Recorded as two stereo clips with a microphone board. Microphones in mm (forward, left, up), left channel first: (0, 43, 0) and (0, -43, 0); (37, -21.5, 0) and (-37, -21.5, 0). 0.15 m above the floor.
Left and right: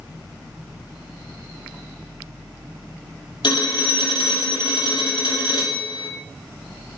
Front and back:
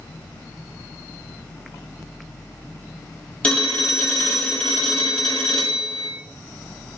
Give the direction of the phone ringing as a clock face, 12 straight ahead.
10 o'clock.